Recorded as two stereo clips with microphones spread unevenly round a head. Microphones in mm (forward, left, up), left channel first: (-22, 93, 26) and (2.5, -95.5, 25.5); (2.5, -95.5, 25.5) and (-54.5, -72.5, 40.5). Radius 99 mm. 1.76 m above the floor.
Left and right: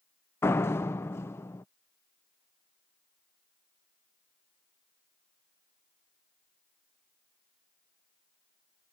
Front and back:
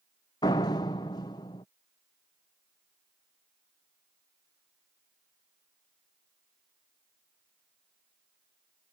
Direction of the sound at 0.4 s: 20° left.